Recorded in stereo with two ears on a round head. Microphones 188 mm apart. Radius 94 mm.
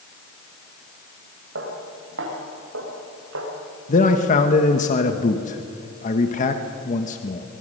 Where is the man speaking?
35° left (ahead or behind), 1.3 m.